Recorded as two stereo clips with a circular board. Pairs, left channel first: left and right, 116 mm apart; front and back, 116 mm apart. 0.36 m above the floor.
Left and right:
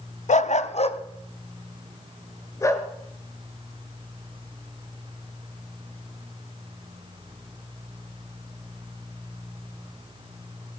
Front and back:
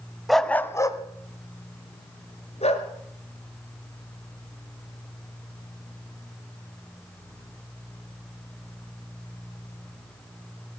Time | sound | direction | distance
0.3 | a dog barking | 90° left | 0.6 m